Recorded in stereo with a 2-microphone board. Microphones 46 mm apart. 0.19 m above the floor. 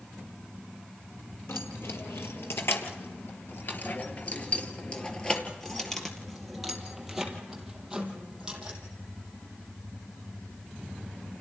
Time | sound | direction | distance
1.5 | keys jangling | 75° left (ahead or behind) | 3 m